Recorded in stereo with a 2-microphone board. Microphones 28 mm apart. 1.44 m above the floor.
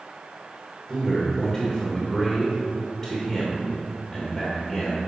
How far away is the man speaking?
About 1.6 m.